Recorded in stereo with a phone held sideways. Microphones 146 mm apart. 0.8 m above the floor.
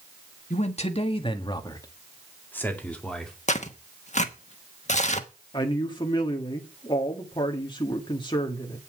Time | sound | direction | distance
0.5 | a man speaking | 55° left (ahead or behind) | 1.5 m
3.5 | tearing paper | 55° left (ahead or behind) | 1.1 m
5.5 | a man speaking | 35° left (ahead or behind) | 1.6 m